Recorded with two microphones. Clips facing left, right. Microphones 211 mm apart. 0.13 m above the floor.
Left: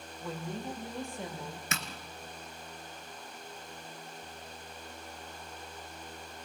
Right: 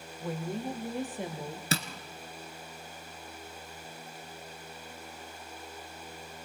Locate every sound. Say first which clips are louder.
0.2 s a woman speaking: right 4 dB; 15° right (ahead or behind), 4 m; by 1.6 s 20° right (ahead or behind), 3.5 m
1.7 s tapping: right 9 dB; 35° right (ahead or behind), 1.7 m